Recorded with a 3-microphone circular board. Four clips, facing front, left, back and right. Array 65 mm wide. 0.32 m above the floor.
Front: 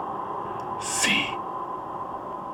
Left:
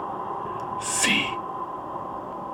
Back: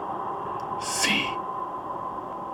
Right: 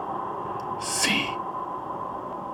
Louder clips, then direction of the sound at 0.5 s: Even, back 1 dB; 60° left.